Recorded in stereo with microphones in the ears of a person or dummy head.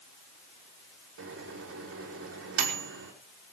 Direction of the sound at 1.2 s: 85° right.